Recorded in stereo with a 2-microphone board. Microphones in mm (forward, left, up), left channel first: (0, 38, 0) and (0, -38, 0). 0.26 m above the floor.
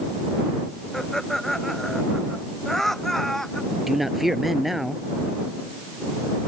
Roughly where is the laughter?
Centre.